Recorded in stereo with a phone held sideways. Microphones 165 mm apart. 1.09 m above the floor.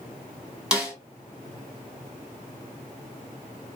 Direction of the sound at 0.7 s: 5° right (ahead or behind).